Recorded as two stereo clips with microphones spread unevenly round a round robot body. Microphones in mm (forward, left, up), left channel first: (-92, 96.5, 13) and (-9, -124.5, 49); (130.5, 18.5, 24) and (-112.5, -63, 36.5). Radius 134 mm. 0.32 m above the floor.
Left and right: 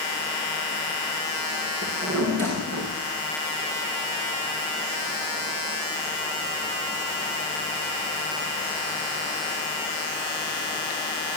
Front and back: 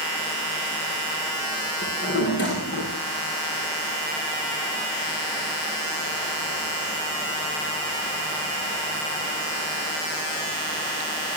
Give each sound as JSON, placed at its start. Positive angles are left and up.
{"t": 1.8, "sound": "a drawer", "azimuth_deg": -30, "distance_m": 7.0}